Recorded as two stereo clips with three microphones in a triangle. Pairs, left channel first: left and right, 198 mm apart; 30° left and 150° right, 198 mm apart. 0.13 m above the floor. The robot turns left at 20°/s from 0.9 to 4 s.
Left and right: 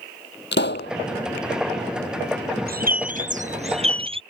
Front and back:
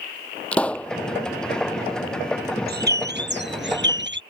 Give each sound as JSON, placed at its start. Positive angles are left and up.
{"t": 0.5, "sound": "a pop", "azimuth_deg": 115}
{"t": 2.7, "sound": "a bird", "azimuth_deg": -125}